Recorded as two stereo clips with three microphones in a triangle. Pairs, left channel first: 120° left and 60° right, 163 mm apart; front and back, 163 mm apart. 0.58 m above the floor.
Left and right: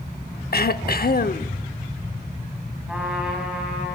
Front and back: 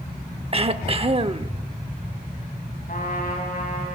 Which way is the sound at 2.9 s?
25° left.